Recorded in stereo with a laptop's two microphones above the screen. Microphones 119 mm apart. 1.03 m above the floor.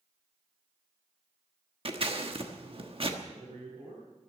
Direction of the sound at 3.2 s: 55° right (ahead or behind).